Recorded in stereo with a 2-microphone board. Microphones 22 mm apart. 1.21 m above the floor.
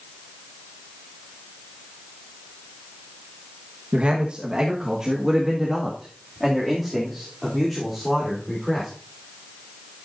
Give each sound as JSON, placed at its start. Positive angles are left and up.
{"t": 3.9, "sound": "a man speaking", "side_deg": -60, "distance_m": 1.2}